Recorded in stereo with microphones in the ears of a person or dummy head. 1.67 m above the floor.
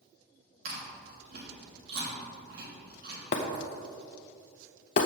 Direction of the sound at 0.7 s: 60° right (ahead or behind).